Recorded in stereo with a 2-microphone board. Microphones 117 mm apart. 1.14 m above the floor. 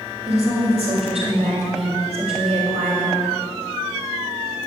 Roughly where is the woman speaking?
Right.